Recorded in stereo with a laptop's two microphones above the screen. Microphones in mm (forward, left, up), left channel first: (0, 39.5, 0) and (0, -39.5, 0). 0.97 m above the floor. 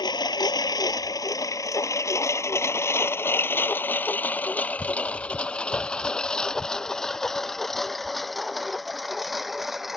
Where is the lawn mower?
65° left (ahead or behind); by 10.0 s centre (ahead or behind).